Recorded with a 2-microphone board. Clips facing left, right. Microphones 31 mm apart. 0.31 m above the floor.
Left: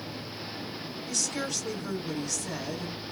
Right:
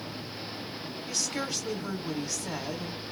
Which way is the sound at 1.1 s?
20° right (ahead or behind).